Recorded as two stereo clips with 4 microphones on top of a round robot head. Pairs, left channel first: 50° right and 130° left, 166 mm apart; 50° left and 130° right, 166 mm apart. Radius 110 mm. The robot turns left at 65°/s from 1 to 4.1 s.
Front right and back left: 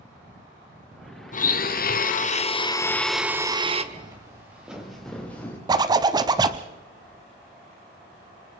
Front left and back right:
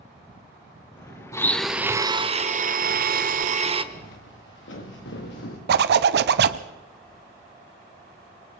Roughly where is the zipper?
Behind.